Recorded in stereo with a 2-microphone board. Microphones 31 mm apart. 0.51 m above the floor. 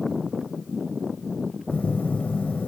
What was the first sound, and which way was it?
A phone buzzing, 65° left (ahead or behind).